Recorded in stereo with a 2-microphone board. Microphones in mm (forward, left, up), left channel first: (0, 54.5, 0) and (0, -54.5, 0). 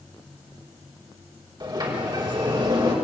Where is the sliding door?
40° right (ahead or behind), 5.5 m.